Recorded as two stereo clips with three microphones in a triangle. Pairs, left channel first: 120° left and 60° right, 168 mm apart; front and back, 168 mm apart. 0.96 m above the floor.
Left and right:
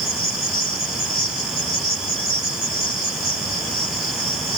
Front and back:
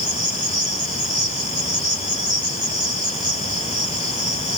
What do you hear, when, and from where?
0.0 s an insect: 145° left, 6 m